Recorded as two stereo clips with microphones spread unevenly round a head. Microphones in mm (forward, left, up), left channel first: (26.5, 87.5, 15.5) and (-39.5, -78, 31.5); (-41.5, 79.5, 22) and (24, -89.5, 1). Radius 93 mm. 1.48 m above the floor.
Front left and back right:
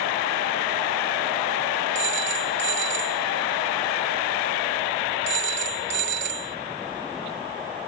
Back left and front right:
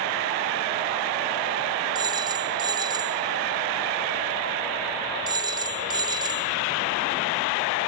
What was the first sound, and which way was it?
A phone ringing, 140° right.